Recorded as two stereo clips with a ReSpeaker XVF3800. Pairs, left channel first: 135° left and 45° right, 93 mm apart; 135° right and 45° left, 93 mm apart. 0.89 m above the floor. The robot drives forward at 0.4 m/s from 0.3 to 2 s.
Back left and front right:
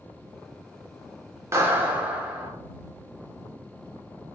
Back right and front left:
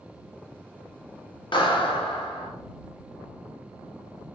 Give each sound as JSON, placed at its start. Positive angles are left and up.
{"t": 1.5, "sound": "a clap", "azimuth_deg": -105, "distance_m": 0.7}